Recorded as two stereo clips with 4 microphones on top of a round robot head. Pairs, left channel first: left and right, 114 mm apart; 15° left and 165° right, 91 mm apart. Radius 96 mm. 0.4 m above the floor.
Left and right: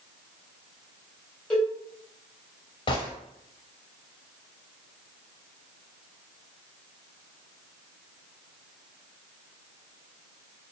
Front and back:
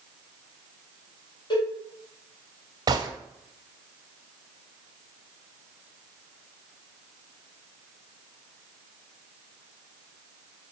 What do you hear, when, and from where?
1.5 s a cowbell: 15° left, 1.8 m
2.9 s a gunshot: 145° left, 0.6 m